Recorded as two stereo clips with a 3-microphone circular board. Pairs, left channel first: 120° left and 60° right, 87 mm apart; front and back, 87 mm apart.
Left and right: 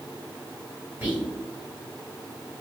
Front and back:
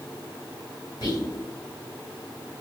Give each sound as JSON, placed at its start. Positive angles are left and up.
{"t": 1.0, "sound": "whispering", "azimuth_deg": 5, "distance_m": 1.7}